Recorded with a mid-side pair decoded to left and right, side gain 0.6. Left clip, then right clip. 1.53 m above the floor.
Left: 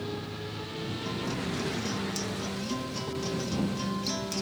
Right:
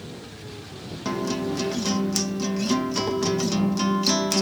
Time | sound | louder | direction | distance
1.1 | a guitar | right 10 dB | 50° right | ?